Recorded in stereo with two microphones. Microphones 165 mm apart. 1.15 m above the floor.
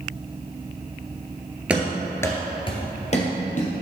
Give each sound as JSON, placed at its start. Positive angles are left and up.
{"t": 1.7, "sound": "running footsteps", "side_deg": -10, "distance_m": 1.2}